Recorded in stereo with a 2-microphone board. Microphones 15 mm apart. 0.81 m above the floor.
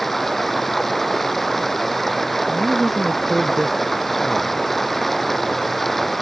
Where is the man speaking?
15° right (ahead or behind).